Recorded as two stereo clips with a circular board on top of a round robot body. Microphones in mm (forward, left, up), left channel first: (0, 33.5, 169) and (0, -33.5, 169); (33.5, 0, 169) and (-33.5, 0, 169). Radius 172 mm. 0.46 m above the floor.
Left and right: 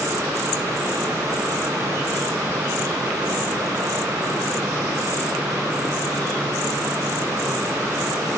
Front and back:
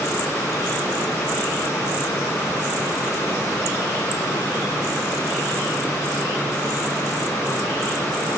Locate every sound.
Only background noise.